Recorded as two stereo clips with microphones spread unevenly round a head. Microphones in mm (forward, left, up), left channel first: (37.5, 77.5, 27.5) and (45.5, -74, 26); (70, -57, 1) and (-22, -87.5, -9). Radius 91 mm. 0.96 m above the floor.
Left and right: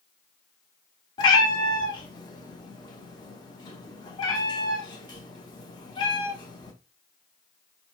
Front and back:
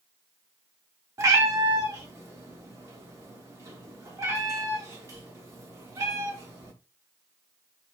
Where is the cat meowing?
145° left, 0.5 m.